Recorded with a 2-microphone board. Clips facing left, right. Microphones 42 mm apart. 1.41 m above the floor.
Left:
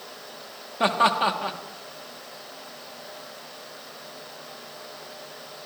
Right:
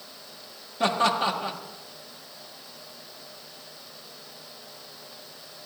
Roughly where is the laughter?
Left.